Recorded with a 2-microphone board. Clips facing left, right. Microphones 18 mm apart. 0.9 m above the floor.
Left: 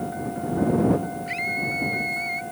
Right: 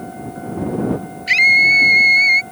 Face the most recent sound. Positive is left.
turn(degrees=-85)